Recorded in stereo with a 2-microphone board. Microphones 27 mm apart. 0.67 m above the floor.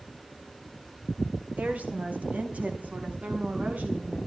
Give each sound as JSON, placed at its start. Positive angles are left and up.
{"t": 1.6, "sound": "a woman speaking", "side_deg": -65, "distance_m": 4.0}